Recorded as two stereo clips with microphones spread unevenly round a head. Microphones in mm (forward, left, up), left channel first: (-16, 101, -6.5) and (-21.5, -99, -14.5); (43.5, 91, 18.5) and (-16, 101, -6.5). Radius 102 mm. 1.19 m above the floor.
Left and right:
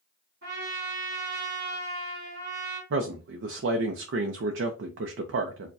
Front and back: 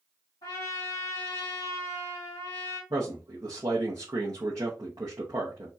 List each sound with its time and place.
0.4 s a trumpet: 50° right, 2.5 m
2.9 s a man speaking: 125° right, 0.5 m